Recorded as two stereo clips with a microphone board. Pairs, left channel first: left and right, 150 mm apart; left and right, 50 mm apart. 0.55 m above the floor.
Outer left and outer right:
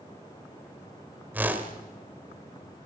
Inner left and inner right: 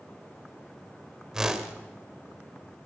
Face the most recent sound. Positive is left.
turn(degrees=-10)  # may be behind; listen again after turning